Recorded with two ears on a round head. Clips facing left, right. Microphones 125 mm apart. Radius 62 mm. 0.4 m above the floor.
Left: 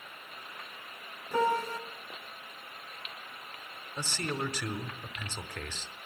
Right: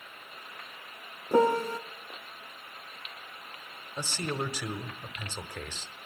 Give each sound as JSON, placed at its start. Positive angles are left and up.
{"t": 1.3, "sound": "a piano", "side_deg": -35, "distance_m": 0.7}
{"t": 4.0, "sound": "a man speaking", "side_deg": -10, "distance_m": 1.0}